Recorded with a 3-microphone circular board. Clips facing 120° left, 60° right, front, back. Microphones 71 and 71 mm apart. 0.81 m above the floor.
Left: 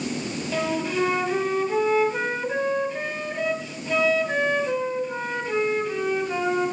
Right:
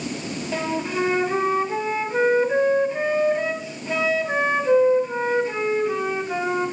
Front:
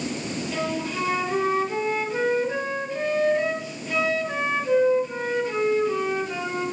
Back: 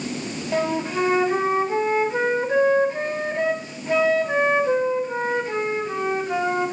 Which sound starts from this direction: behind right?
A flute, at 0.5 s.